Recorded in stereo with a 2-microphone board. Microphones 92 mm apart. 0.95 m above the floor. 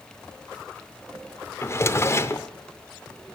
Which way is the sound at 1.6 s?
30° left (ahead or behind).